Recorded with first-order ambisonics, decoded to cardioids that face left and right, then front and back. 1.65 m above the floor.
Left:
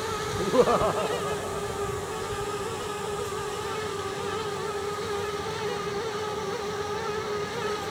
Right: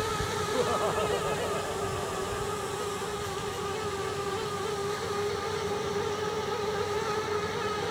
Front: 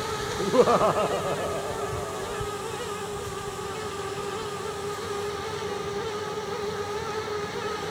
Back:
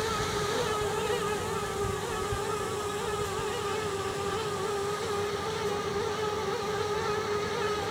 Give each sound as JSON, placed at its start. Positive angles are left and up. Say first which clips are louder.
{"t": 0.4, "sound": "laughter", "louder": "left 8 dB, front 9 dB", "azimuth_deg": 45}